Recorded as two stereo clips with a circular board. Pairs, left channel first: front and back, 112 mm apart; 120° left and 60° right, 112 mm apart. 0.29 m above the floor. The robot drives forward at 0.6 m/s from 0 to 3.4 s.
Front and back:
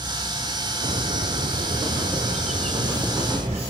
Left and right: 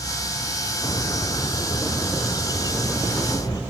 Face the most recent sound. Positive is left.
turn(degrees=175)